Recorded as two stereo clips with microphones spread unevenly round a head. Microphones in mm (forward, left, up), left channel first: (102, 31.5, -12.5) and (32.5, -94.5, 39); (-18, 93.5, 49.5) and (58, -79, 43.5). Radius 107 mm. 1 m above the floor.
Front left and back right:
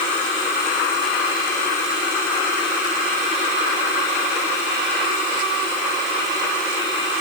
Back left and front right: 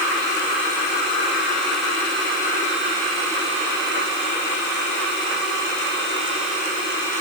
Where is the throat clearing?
I don't hear throat clearing.